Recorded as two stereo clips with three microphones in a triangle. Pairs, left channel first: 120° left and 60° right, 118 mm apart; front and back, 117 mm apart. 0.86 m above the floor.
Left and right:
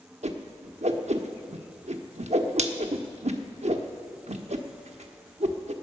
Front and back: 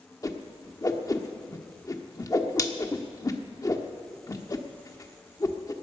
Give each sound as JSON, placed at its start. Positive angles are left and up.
{"t": 0.2, "sound": "a whoosh", "azimuth_deg": -60, "distance_m": 0.9}